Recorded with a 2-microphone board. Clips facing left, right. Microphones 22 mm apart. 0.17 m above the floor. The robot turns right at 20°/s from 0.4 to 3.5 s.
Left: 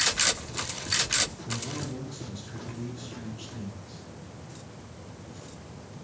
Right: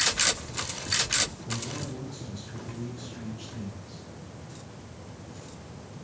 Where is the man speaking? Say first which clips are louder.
Even; 95° left, 4.5 m; by 4.0 s 135° left, 4.5 m.